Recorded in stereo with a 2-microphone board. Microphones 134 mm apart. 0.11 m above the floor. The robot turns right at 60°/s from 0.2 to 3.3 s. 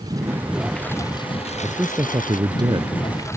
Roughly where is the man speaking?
Behind.